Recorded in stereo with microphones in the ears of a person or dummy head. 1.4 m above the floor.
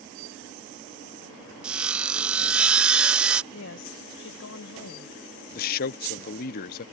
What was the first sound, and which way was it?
Sawing, 10° right (ahead or behind).